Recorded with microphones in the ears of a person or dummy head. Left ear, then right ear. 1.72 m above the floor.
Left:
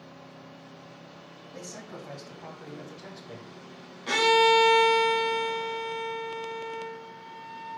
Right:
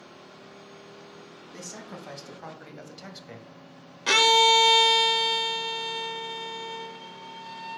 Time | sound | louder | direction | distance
1.5 | a man speaking | right 1 dB | 80° right | 2.5 m
4.1 | a violin | right 2 dB | 55° right (ahead or behind) | 0.9 m